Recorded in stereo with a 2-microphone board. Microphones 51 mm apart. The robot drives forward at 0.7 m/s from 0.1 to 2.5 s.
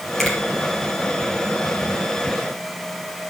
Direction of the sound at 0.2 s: 5° left (ahead or behind).